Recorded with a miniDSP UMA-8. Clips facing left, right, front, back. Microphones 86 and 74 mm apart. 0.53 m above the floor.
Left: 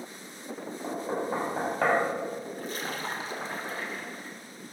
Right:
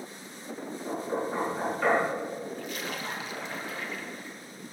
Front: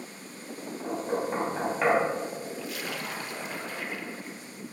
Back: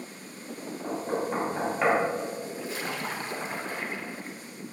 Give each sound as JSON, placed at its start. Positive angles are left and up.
{"t": 0.8, "sound": "knocking", "azimuth_deg": 95, "distance_m": 3.5}
{"t": 2.6, "sound": "a splash", "azimuth_deg": 130, "distance_m": 1.3}